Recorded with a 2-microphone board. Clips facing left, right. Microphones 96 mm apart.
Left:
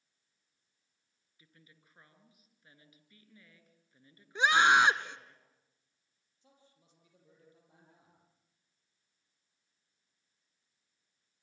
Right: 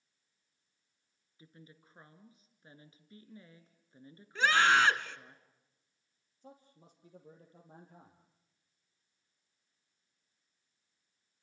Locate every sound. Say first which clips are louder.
1.4 s a woman speaking: right 8 dB; 30° right (ahead or behind), 2 m
4.3 s a scream: left 2 dB; 20° left (ahead or behind), 1.1 m
6.4 s a man speaking: right 11 dB; 40° right (ahead or behind), 3.5 m